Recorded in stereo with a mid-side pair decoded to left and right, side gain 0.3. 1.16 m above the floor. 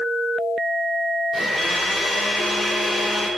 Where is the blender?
60° left, 2.5 m.